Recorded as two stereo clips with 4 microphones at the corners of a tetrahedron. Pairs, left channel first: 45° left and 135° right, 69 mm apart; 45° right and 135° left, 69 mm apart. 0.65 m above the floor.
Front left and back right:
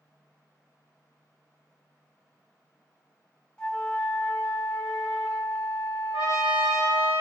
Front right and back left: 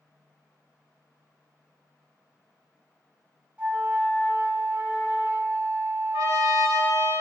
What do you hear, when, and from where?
3.6 s a flute: 105° left, 0.7 m
6.1 s a trumpet: 95° right, 1.8 m